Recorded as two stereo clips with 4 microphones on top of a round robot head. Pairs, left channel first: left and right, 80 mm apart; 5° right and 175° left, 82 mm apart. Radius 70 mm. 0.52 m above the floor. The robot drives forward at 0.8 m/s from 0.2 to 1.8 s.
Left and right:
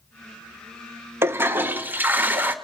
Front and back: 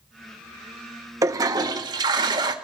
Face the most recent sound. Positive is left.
turn(degrees=-155)